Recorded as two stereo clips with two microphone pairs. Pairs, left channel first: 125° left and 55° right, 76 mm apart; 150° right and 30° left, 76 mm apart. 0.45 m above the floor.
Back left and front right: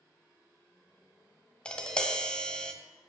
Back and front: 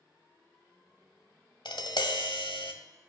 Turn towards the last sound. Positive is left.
turn(degrees=-155)